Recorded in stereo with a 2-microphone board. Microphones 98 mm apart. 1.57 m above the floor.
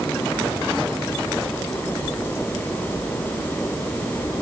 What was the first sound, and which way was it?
Only background noise.